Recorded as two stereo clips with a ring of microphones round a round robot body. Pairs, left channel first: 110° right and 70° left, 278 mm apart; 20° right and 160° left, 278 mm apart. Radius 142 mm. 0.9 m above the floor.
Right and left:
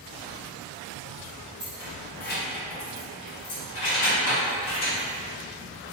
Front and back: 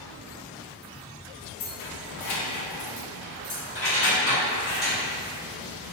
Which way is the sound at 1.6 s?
20° right.